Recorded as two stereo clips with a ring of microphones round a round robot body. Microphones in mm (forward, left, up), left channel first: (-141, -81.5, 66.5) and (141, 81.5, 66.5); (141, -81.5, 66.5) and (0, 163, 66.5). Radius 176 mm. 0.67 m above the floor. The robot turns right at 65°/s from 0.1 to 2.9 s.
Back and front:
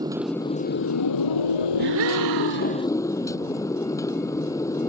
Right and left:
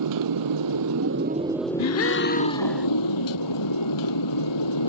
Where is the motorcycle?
110° left; by 4.9 s 70° right.